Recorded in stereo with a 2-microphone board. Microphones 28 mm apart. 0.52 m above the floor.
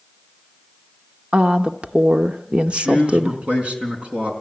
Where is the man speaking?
40° right (ahead or behind), 4.5 m.